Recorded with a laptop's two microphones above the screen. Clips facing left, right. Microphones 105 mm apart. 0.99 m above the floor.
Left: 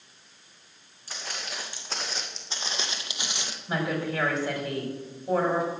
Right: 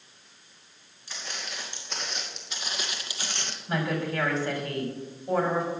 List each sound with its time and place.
1.1 s footsteps: 40° left (ahead or behind), 4 m; by 3.6 s 5° left (ahead or behind), 1.2 m
3.7 s a woman speaking: 10° left (ahead or behind), 4.5 m